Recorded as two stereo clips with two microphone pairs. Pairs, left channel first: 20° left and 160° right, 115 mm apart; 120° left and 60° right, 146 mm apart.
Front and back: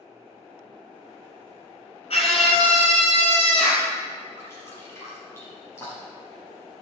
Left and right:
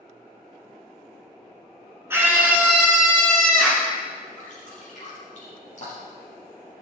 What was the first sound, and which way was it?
A scream, 10° left.